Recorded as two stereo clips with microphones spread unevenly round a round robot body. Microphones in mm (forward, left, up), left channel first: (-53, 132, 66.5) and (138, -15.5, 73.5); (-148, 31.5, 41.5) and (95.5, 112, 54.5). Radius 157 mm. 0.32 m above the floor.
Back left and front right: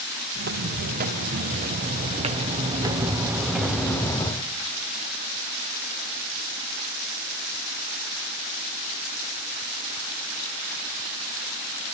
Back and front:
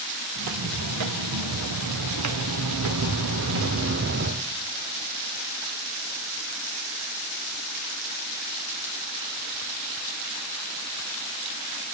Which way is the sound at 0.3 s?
10° left.